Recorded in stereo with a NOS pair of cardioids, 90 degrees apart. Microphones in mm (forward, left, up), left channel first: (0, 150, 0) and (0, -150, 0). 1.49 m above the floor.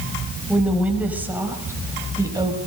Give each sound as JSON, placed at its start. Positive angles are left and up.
{"t": 0.5, "sound": "a woman speaking", "azimuth_deg": 0, "distance_m": 7.0}